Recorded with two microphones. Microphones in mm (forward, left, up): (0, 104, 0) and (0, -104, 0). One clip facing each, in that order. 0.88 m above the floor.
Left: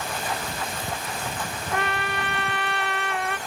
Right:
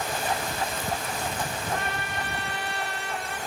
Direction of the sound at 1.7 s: 70° left (ahead or behind).